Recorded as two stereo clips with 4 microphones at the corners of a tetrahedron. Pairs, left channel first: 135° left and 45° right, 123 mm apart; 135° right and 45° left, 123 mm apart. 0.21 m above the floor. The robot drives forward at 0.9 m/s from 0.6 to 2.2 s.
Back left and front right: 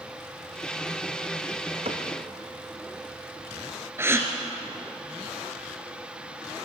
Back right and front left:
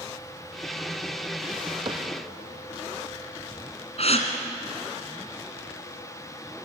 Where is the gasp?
115° right, 2 m.